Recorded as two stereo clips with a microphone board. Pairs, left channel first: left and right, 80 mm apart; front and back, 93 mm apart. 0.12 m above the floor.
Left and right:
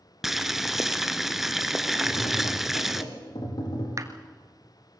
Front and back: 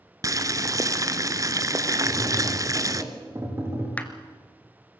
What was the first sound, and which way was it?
Boiling, 175° right.